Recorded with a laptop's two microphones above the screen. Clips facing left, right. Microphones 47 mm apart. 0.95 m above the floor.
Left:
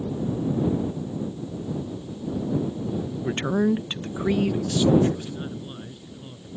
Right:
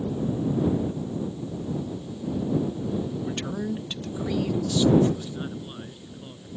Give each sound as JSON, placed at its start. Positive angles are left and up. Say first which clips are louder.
{"t": 3.2, "sound": "a man speaking", "louder": "left 7 dB", "side_deg": 35}
{"t": 5.1, "sound": "a man speaking", "louder": "even", "side_deg": -5}